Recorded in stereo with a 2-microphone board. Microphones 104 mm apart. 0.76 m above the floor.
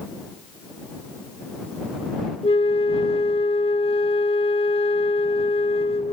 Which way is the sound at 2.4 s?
65° left (ahead or behind).